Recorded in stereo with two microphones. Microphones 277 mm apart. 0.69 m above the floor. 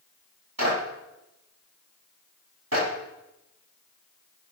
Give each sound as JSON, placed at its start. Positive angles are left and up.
{"t": 0.6, "sound": "a clap", "side_deg": -60, "distance_m": 5.5}